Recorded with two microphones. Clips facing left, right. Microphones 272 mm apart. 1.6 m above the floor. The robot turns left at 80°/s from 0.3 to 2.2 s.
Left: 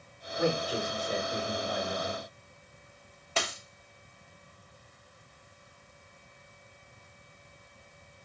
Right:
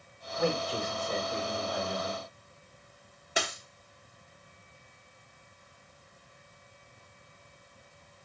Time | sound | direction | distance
0.4 | a man speaking | 65° left | 2.5 m
3.4 | a dropped coin | 15° right (ahead or behind) | 0.9 m